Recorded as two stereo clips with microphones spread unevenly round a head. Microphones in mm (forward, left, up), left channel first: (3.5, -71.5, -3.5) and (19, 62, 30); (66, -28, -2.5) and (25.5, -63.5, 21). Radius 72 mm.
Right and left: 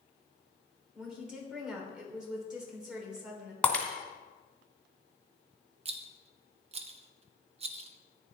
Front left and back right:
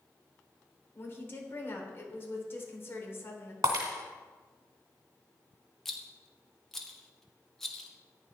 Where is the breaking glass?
Straight behind, 1.6 m.